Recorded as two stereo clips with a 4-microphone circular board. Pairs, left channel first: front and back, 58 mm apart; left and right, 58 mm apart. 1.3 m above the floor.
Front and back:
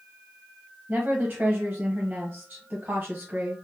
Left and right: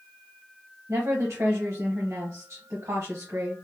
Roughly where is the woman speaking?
Behind right.